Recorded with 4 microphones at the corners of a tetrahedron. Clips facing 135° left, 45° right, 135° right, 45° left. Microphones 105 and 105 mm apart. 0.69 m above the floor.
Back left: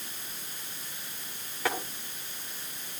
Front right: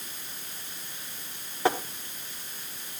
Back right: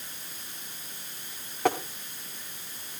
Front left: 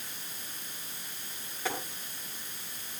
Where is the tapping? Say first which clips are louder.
Front right 6 dB, back right 10 dB; 105° right, 1.9 m.